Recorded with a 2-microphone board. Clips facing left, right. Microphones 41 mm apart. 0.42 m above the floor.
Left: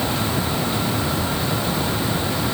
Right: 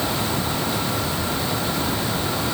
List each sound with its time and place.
Only background noise.